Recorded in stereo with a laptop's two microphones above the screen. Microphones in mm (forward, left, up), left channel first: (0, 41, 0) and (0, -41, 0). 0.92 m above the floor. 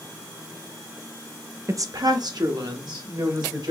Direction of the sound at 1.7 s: 40° right (ahead or behind).